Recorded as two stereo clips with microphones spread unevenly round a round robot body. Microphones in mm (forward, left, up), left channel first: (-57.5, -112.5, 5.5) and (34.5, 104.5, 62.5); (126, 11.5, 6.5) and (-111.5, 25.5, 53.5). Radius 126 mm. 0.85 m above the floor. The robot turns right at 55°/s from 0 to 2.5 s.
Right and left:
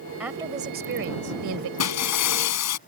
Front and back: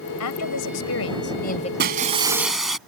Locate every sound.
0.2 s a woman speaking: 20° right; by 1.7 s 65° left
1.8 s breaking glass: 135° right; by 2.8 s 95° right